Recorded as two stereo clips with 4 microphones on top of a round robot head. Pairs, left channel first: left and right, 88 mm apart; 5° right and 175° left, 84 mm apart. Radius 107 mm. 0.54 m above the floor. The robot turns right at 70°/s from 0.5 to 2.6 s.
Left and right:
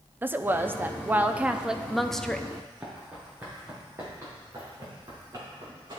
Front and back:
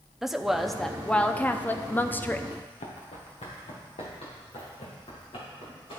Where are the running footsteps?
10° right, 1.9 m; by 6.0 s 40° right, 3.5 m.